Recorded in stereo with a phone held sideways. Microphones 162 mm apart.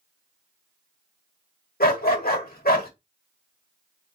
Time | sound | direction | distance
1.8 | a dog barking | 65° left (ahead or behind) | 1.3 m